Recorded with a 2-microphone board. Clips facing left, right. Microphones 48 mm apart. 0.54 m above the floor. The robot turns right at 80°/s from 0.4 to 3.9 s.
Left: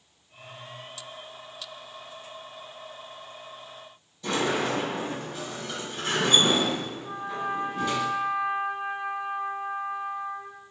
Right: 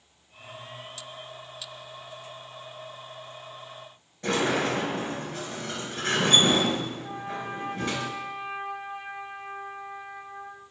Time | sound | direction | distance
4.2 | a sliding door | 40° right (ahead or behind) | 3.5 m
7.0 | a trumpet | 45° right (ahead or behind) | 1.7 m